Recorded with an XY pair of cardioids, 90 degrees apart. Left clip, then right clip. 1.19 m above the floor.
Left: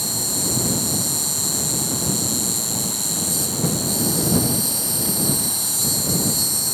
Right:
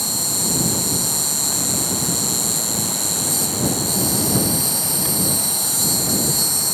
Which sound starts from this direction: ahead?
An insect, at 0.0 s.